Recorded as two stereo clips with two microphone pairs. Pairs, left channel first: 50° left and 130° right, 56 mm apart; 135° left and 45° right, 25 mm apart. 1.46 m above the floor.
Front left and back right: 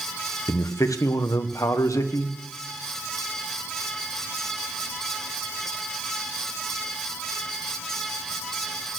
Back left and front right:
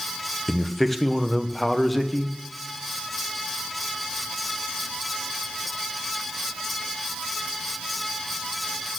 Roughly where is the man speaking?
Ahead left.